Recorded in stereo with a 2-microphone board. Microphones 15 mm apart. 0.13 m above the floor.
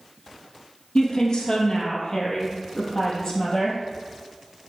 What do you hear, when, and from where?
0.9 s a woman speaking: 45° left (ahead or behind), 3.5 m; by 3.8 s 30° left (ahead or behind), 4.5 m